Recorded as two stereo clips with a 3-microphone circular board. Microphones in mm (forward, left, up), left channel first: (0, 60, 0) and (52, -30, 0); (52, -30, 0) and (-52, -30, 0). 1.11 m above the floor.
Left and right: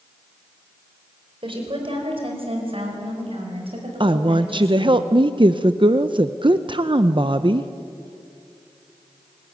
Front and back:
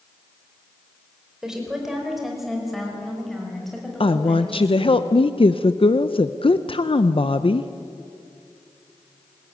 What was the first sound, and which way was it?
A woman speaking, 95° right.